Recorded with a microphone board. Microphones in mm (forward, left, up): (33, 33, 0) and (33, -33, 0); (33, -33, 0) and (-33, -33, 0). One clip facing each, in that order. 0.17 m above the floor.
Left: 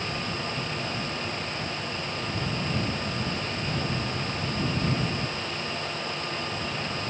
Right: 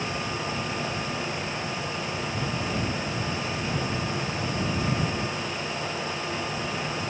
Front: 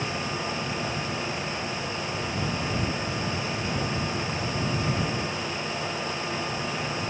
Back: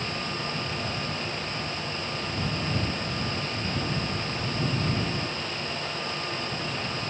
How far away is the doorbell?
No doorbell in this recording.